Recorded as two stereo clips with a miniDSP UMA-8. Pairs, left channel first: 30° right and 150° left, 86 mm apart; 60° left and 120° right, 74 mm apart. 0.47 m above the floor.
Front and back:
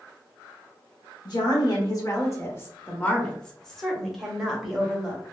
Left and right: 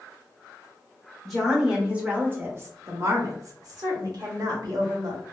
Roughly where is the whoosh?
No whoosh in this recording.